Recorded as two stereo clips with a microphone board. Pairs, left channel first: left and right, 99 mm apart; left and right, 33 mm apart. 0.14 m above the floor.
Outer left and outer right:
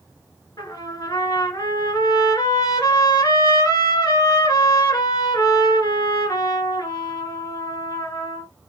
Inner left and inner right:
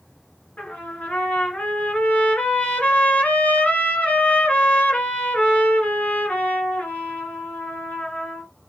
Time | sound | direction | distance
0.6 | a trumpet | 45° left (ahead or behind) | 1.8 m